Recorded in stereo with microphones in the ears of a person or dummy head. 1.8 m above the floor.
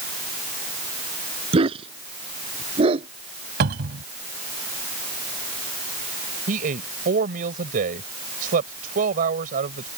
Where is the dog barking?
30° right (ahead or behind).